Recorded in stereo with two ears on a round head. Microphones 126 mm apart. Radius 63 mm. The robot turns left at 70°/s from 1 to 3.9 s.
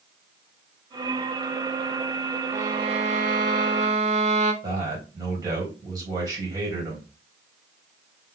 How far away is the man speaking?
About 3.5 m.